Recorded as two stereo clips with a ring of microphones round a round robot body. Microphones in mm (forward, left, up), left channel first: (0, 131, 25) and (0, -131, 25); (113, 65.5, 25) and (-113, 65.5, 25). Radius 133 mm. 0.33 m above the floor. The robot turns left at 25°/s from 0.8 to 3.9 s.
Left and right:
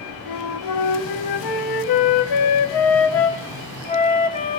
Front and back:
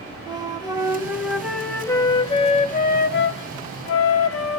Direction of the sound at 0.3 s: 105° left.